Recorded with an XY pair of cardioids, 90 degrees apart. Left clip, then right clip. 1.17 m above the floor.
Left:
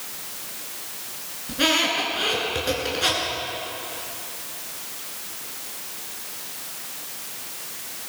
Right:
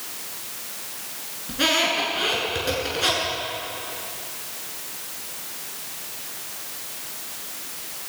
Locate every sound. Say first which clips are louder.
1.5 s a squeak: even; 5° left, 9 m